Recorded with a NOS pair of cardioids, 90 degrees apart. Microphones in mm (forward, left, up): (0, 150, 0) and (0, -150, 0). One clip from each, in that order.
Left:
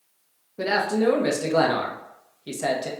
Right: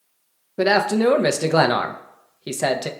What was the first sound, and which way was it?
A man speaking, 40° right.